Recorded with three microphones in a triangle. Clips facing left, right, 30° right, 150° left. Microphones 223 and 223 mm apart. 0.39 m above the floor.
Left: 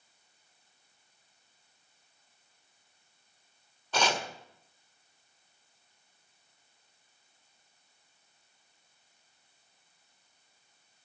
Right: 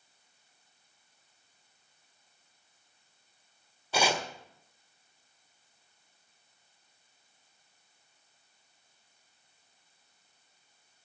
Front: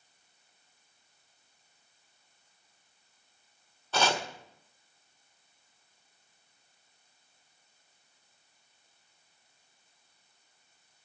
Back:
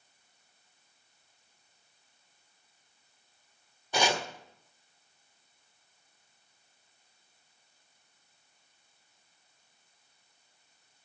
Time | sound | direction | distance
3.9 | chopping | 155° right | 1.4 m